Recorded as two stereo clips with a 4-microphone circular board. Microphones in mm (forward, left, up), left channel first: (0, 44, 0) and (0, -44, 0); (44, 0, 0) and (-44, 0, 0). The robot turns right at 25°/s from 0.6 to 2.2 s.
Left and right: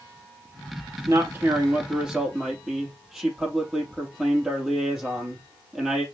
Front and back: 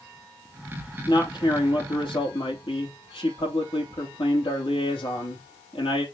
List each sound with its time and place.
1.1 s a man speaking: 35° right, 5.5 m; by 6.0 s 5° right, 5.5 m